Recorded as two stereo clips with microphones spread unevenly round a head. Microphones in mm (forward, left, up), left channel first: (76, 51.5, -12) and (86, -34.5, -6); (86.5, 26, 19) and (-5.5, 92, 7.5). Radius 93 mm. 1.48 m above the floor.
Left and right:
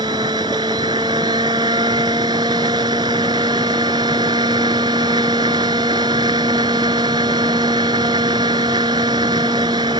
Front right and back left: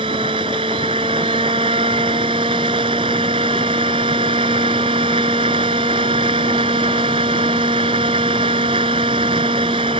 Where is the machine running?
150° right.